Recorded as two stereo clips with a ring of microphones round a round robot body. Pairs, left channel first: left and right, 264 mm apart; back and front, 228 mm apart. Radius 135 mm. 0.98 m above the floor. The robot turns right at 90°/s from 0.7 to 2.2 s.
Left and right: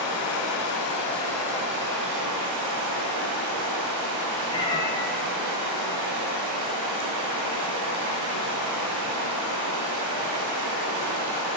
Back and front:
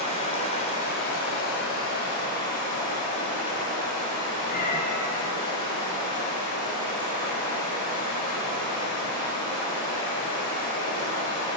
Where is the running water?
120° left, 1.5 m; by 11.6 s 105° right, 1.5 m.